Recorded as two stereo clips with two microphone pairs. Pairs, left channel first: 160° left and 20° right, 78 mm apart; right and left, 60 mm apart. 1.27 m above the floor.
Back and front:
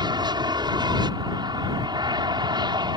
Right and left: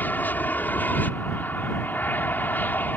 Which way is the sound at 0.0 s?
30° right.